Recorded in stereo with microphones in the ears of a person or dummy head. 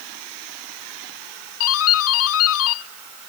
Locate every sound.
1.6 s a doorbell: 85° left